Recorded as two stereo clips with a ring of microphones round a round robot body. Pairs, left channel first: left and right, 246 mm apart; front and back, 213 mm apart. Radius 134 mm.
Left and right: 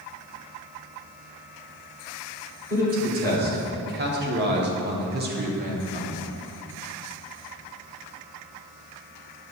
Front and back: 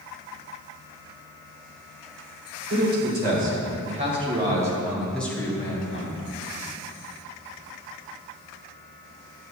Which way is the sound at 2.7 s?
140° right.